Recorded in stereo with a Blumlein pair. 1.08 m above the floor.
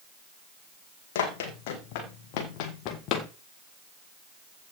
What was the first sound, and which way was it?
Running footsteps, 50° left.